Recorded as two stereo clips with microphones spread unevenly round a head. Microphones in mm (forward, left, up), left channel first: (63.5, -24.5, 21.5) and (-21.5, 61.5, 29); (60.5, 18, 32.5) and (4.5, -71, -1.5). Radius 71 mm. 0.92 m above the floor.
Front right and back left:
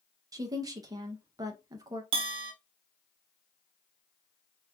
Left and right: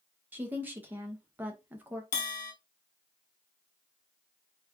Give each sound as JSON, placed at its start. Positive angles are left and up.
{"t": 0.3, "sound": "a woman speaking", "azimuth_deg": -170, "distance_m": 0.7}
{"t": 2.1, "sound": "a bell", "azimuth_deg": 90, "distance_m": 0.7}